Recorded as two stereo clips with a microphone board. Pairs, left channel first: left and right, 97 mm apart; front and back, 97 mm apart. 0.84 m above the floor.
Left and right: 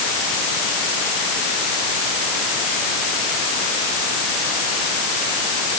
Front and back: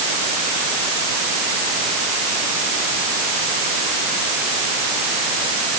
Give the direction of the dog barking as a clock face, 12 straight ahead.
No dog barking in this recording.